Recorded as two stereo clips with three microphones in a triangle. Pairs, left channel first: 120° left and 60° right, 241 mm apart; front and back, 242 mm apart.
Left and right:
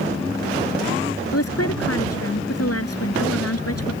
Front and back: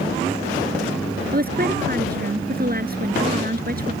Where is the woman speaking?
130° left.